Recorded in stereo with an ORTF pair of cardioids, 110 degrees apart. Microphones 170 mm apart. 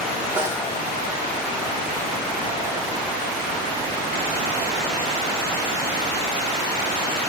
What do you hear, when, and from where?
0.4 s a snare drum: 15° right, 3 m